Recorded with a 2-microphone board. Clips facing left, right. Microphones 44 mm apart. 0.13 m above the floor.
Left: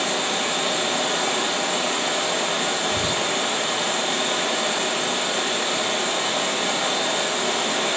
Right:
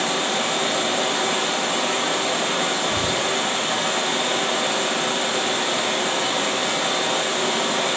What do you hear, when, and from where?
0.0 s running water: 65° right (ahead or behind), 6 m
2.9 s whispering: 15° right (ahead or behind), 1.2 m